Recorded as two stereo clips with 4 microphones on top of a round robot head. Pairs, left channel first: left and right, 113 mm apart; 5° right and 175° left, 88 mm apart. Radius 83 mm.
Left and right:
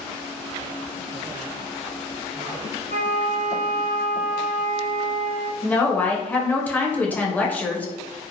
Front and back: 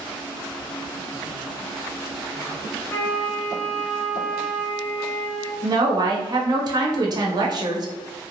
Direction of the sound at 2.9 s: 60° left.